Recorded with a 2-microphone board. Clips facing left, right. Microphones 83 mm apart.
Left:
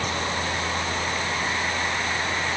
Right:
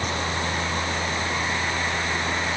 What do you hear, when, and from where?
Only background noise.